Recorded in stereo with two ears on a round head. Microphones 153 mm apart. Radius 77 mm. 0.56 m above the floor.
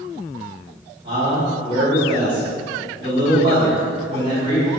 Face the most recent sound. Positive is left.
turn(degrees=-30)  # may be behind; listen again after turning